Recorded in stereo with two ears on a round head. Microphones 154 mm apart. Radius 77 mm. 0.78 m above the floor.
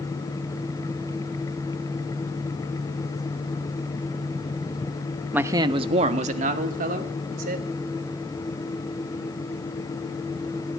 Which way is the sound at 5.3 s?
10° right (ahead or behind).